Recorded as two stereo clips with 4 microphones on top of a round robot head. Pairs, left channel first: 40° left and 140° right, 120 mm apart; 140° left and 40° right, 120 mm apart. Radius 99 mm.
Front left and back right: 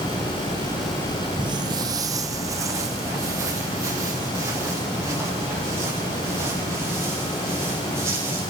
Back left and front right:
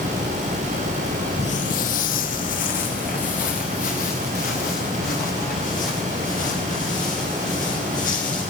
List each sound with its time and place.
1.4 s footsteps: 175° left, 0.6 m; by 8.4 s 150° left, 11.5 m